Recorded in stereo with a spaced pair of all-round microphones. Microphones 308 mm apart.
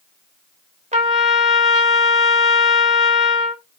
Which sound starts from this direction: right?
A trumpet, at 0.9 s.